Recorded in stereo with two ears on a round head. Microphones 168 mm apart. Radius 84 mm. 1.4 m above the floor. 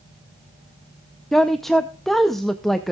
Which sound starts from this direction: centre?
A woman speaking, at 1.3 s.